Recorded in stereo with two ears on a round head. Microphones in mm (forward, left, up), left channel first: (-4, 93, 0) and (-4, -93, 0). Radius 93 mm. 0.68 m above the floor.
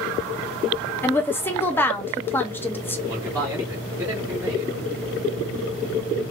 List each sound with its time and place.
1.0 s a woman speaking: 10° left (ahead or behind), 0.5 m
3.1 s a man speaking: 15° right (ahead or behind), 1.8 m